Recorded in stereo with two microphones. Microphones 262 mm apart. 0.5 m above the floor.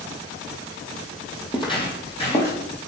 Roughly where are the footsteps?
Centre.